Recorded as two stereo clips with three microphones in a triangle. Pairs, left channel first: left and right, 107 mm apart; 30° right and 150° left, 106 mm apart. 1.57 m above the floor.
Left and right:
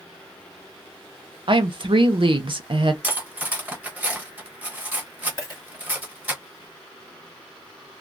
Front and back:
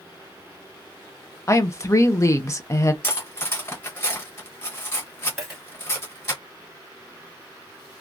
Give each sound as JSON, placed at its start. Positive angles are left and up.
{"t": 1.5, "sound": "a woman speaking", "azimuth_deg": -85, "distance_m": 0.6}
{"t": 3.0, "sound": "cutlery clinking", "azimuth_deg": -40, "distance_m": 0.8}
{"t": 5.4, "sound": "a dropped coin", "azimuth_deg": 65, "distance_m": 1.7}